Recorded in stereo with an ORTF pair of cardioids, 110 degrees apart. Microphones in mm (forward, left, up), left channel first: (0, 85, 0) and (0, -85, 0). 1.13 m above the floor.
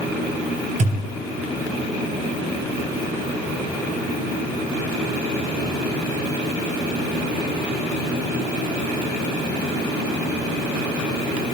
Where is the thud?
50° right, 3 m.